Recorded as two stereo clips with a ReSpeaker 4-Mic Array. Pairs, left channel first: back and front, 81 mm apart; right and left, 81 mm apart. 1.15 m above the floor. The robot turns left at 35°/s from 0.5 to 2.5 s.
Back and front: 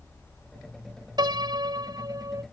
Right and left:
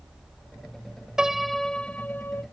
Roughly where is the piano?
Ahead.